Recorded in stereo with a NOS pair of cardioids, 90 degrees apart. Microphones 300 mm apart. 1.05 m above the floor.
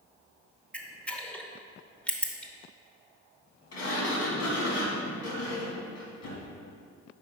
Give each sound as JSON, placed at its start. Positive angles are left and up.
{"t": 0.7, "sound": "a camera shutter", "azimuth_deg": 5, "distance_m": 0.8}
{"t": 3.7, "sound": "a sliding door", "azimuth_deg": 60, "distance_m": 1.7}